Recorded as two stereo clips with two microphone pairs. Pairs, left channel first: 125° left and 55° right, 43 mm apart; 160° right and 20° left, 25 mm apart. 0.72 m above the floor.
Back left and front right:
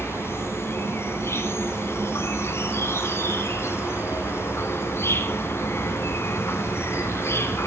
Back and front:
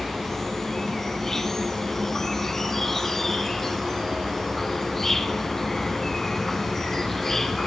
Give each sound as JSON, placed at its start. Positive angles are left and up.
{"t": 0.0, "sound": "an insect", "azimuth_deg": 120, "distance_m": 2.0}